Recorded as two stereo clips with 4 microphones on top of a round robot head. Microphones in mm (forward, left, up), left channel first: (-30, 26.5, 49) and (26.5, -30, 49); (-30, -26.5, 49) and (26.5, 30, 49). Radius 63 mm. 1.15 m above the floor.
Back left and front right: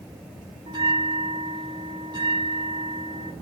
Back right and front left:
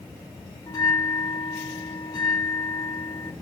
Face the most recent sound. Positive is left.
turn(degrees=-85)